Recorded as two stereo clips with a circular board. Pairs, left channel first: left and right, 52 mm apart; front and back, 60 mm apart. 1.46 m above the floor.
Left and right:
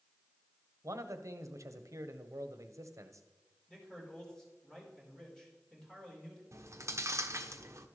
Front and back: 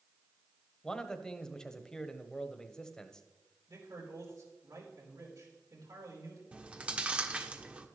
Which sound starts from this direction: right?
A man speaking, at 0.8 s.